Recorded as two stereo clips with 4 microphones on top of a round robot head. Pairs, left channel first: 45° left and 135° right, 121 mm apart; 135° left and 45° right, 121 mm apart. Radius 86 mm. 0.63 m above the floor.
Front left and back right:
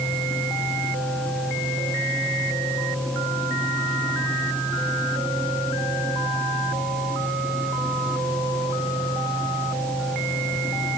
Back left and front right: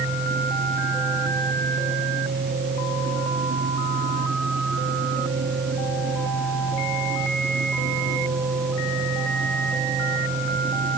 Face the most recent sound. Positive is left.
No sound to turn to.